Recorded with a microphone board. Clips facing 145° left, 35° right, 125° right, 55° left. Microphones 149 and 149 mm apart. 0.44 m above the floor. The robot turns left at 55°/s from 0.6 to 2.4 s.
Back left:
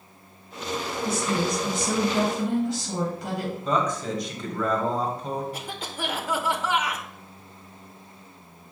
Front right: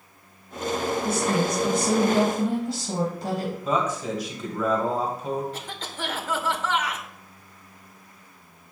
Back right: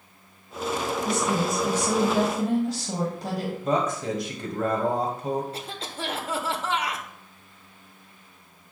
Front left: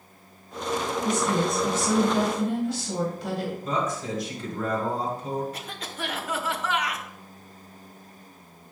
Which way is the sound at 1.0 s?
10° right.